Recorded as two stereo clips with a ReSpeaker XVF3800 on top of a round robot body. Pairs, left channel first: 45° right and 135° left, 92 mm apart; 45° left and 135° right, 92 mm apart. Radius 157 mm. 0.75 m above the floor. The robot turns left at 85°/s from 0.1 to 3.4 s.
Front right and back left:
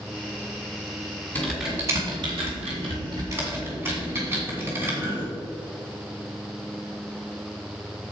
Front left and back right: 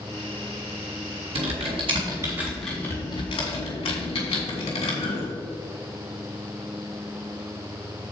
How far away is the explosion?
No explosion in this recording.